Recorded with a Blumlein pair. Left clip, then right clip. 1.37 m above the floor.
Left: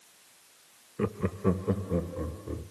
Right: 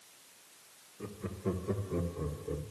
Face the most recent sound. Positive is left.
turn(degrees=30)